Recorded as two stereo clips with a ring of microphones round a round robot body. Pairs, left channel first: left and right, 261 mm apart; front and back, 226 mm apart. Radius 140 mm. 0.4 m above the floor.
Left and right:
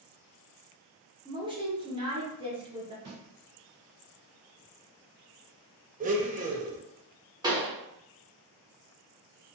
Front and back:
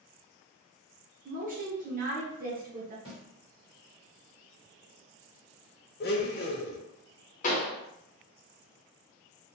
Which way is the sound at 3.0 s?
120° right.